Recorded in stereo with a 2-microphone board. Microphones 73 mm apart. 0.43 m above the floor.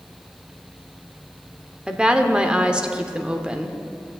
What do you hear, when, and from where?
1.9 s a woman speaking: 15° right (ahead or behind), 0.9 m